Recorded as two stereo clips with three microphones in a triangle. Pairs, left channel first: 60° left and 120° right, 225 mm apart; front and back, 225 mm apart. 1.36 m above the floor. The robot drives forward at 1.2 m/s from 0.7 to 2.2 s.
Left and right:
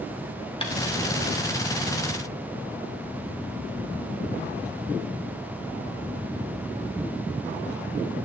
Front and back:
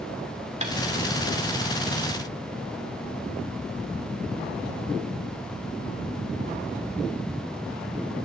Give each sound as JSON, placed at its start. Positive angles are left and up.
{"t": 0.6, "sound": "tapping", "azimuth_deg": 120, "distance_m": 2.0}